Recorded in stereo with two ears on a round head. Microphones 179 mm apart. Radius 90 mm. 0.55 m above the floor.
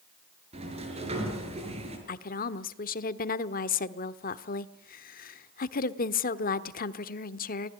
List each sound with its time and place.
0.5 s a sliding door: 35° right (ahead or behind), 6 m
2.1 s a woman speaking: 50° left (ahead or behind), 1.2 m